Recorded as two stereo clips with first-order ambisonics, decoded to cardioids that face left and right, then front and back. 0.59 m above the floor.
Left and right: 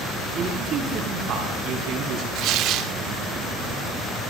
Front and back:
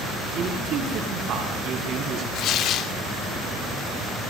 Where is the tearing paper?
50° right, 0.5 m.